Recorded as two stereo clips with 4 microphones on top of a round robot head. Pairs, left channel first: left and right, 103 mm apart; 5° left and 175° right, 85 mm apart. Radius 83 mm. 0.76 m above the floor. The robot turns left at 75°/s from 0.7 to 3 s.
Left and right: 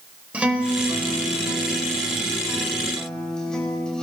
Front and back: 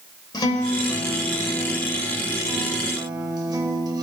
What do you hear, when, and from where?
0.3 s a guitar: 15° right, 1.9 m; by 4.0 s 170° left, 1.9 m